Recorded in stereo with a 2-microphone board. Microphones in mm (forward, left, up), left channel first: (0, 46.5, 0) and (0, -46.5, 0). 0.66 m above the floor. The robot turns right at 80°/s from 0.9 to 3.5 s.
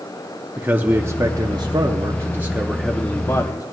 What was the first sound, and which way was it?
A man speaking, 150° right.